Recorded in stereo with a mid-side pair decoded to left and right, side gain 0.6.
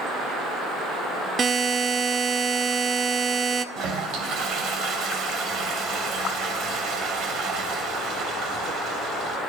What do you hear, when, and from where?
1.4 s a buzzer: 35° right, 0.7 m
3.8 s a toilet flushing: 60° right, 2.5 m